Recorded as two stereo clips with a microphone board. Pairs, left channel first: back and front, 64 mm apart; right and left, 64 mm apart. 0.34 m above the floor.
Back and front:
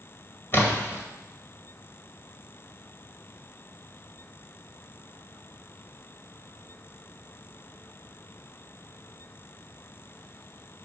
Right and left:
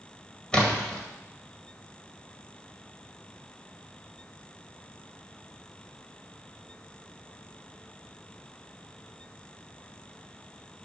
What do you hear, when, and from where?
0.5 s a splash: 155° right, 1.9 m